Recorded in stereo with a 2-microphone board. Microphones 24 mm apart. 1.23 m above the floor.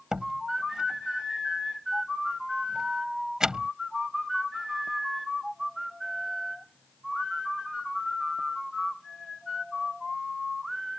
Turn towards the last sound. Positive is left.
turn(degrees=-30)  # may be behind; listen again after turning